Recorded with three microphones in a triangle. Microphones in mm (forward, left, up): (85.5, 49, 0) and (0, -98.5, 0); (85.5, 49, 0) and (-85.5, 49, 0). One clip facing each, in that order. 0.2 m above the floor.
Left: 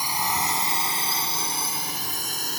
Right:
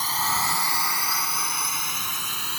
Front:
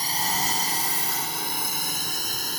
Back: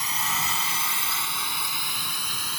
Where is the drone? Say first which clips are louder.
Left 1 dB, front 3 dB; 10° right; by 2.6 s 25° left.